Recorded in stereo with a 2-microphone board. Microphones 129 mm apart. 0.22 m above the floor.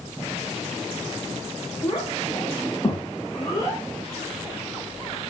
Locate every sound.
1.8 s a child speaking: 25° left (ahead or behind), 6.5 m